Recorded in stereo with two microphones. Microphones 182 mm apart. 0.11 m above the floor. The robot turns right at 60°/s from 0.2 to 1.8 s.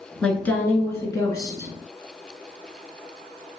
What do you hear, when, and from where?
0.2 s a woman speaking: 5° left (ahead or behind), 1.3 m; by 1.7 s 15° left (ahead or behind), 1.3 m